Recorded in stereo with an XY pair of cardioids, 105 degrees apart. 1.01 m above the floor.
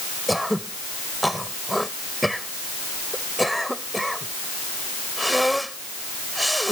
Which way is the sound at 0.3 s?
Straight ahead.